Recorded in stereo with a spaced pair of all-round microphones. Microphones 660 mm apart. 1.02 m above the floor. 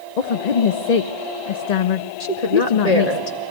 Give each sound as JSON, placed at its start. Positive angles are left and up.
{"t": 0.2, "sound": "a woman speaking", "side_deg": 80, "distance_m": 0.7}
{"t": 2.2, "sound": "a woman speaking", "side_deg": 70, "distance_m": 2.0}